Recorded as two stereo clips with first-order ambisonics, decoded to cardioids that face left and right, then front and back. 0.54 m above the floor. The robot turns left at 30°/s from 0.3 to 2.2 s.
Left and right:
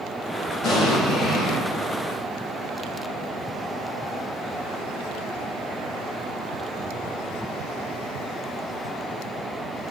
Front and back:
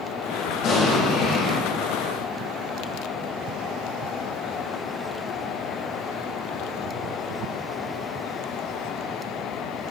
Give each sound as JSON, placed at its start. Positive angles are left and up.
{"t": 0.6, "sound": "an explosion", "azimuth_deg": 50, "distance_m": 4.0}